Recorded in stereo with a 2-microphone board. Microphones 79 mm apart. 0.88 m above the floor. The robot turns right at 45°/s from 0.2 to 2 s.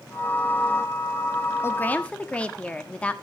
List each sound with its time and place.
1.6 s a woman speaking: 30° left (ahead or behind), 1.2 m; by 3.1 s 15° left (ahead or behind), 1.2 m